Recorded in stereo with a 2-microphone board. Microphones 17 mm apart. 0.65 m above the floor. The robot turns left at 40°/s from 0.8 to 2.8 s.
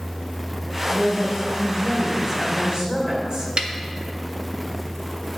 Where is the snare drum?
55° right (ahead or behind), 0.6 m.